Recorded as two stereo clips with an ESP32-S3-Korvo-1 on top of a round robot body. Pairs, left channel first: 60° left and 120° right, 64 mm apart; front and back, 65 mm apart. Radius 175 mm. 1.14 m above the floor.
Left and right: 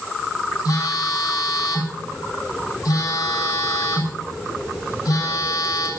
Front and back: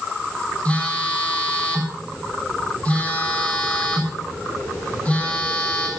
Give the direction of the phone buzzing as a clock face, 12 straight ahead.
10 o'clock.